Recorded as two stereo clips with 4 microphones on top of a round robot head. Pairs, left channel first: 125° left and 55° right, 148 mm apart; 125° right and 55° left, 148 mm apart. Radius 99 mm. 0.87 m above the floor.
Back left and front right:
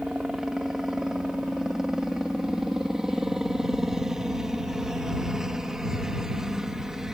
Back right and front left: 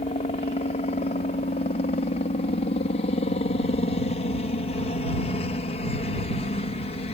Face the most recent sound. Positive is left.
turn(degrees=-140)